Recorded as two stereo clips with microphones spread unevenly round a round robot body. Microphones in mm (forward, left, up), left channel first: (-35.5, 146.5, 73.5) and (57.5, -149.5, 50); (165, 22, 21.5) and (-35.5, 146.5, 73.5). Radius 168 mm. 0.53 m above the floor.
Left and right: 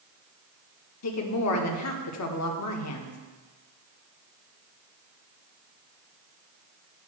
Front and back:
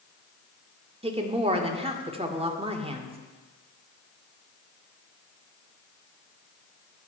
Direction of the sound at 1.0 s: 75° left.